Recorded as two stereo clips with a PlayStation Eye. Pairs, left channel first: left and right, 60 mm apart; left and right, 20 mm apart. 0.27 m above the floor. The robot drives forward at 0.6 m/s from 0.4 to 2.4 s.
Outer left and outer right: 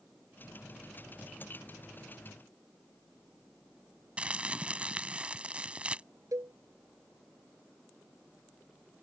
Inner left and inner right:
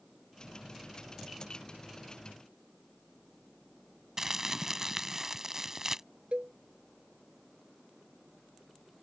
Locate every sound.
4.2 s crumpling: 20° right (ahead or behind)
6.3 s a cowbell: 70° right (ahead or behind)